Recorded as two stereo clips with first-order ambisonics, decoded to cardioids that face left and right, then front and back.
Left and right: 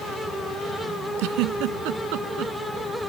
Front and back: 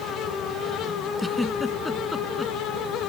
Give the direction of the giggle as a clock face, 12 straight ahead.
3 o'clock.